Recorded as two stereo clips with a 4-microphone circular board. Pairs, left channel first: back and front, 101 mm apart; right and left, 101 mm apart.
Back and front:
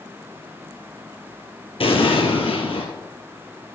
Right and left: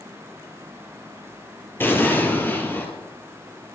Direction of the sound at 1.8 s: 160° right.